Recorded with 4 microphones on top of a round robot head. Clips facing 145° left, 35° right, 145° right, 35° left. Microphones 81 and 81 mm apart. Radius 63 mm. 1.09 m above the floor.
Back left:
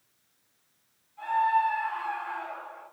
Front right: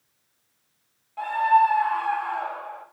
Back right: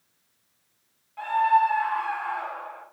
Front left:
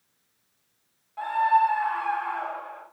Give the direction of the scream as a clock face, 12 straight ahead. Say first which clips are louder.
Front right 6 dB, back right 1 dB; 1 o'clock.